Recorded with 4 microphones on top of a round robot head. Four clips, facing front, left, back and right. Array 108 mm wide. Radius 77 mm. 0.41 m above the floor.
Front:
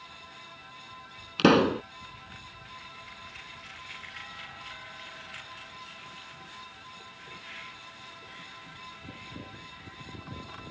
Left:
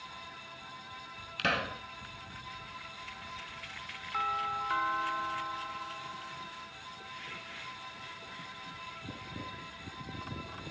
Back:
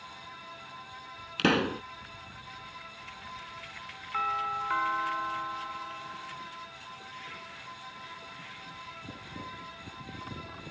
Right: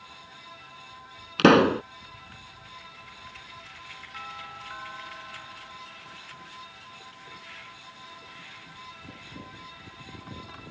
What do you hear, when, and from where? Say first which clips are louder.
1.4 s a pop: right 16 dB, front 6 dB; 75° right
4.1 s a doorbell: left 9 dB, back 15 dB; 150° left